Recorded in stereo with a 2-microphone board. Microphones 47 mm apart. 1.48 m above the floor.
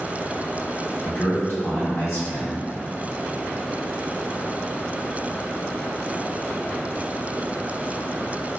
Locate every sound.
1.0 s a man speaking: 60° left (ahead or behind), 1.9 m